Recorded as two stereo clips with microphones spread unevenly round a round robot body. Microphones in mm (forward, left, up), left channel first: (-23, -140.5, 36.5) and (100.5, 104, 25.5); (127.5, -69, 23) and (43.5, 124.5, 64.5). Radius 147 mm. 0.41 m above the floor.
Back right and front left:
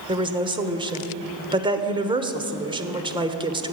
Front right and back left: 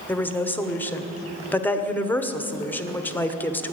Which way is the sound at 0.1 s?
Straight ahead.